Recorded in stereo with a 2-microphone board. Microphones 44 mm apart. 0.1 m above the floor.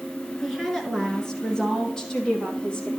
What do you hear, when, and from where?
0.4 s a woman speaking: 5° left (ahead or behind), 1.3 m; by 2.9 s 30° left (ahead or behind), 2.5 m